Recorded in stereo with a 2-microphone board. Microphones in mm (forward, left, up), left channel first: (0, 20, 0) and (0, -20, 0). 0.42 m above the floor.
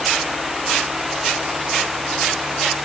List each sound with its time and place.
Only background noise.